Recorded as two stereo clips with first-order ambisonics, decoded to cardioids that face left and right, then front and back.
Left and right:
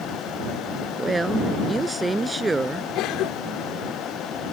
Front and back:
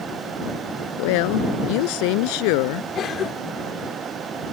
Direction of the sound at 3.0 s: 55° left.